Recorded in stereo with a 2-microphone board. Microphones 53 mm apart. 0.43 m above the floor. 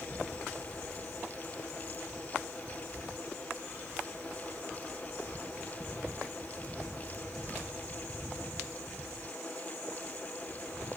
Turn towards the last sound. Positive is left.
No sound to turn to.